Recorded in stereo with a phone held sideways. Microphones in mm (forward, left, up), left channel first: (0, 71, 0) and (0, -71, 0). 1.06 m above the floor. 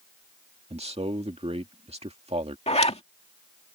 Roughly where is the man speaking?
Right.